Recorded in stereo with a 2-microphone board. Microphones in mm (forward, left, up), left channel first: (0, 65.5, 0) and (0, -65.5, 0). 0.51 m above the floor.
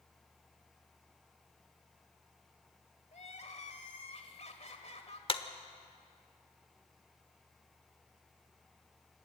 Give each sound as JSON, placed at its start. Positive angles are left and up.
{"t": 3.1, "sound": "crying", "side_deg": 60, "distance_m": 1.8}
{"t": 5.3, "sound": "a clap", "side_deg": 45, "distance_m": 1.1}